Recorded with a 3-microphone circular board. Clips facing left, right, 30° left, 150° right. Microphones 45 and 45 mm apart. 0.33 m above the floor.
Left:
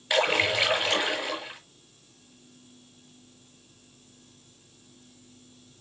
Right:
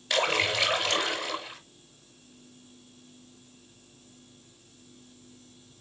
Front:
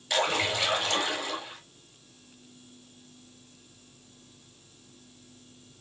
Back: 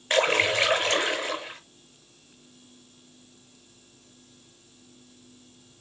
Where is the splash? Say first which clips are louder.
Left 2 dB, back 5 dB; 160° left, 5.5 m.